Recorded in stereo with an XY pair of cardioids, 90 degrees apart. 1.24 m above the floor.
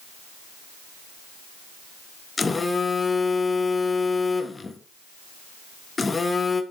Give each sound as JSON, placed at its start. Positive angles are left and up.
{"t": 2.4, "sound": "a phone buzzing", "azimuth_deg": 30, "distance_m": 1.2}